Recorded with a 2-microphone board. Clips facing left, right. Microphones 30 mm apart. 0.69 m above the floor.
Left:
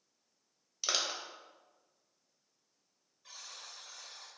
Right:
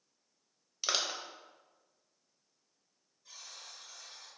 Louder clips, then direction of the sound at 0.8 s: Right 1 dB; 10° right (ahead or behind).